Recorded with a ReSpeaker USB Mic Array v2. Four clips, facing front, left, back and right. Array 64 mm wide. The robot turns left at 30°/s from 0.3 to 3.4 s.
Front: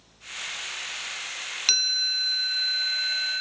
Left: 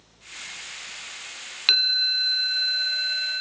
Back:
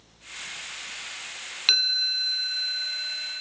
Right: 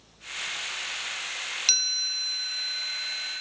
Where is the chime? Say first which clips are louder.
Left 8 dB, back 3 dB; 110° left, 1.3 m; by 3.4 s 60° left, 1.3 m.